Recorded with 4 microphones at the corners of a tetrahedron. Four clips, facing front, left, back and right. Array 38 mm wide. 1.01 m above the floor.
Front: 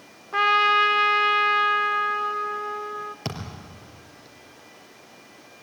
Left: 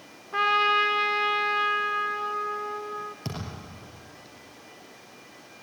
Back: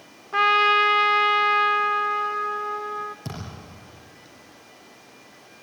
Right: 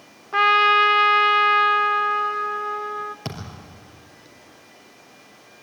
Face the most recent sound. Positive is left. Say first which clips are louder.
# right 2 dB, front 2 dB
turn(degrees=-35)